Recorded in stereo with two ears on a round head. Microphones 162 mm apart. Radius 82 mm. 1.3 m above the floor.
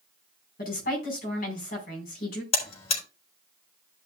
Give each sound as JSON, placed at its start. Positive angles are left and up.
{"t": 0.6, "sound": "a woman speaking", "side_deg": 55, "distance_m": 4.5}
{"t": 2.5, "sound": "a buzzer", "side_deg": 35, "distance_m": 4.0}